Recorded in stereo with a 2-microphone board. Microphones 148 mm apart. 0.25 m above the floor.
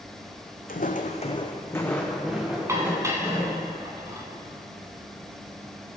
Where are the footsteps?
75° left (ahead or behind), 0.9 m; by 3.6 s 15° right (ahead or behind), 2.5 m.